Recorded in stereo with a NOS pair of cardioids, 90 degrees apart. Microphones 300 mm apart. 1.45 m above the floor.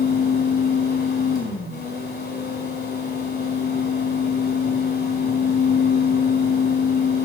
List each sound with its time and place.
0.0 s a fan: 35° left, 4 m